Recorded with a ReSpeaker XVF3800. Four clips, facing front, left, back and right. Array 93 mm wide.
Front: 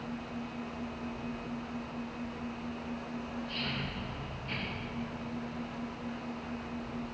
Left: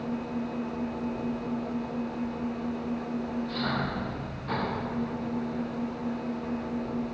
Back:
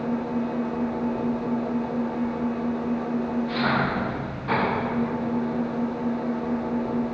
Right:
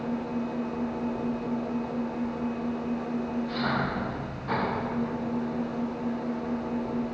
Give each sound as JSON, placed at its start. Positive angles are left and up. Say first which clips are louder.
{"t": 0.0, "sound": "an engine running", "louder": "right 2 dB, back 14 dB", "azimuth_deg": -175}